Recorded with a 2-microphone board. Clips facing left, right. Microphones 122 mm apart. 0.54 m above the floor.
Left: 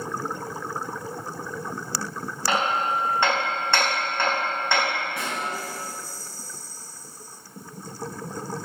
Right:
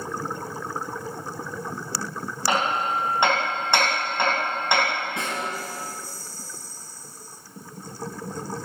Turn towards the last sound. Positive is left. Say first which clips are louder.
# right 1 dB
turn(degrees=-20)  # may be behind; listen again after turning